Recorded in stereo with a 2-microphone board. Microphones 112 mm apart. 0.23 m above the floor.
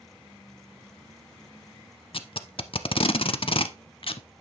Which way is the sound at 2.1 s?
55° left (ahead or behind).